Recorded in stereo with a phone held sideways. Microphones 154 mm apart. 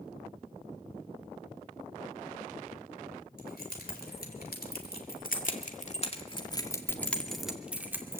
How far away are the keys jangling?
About 4 m.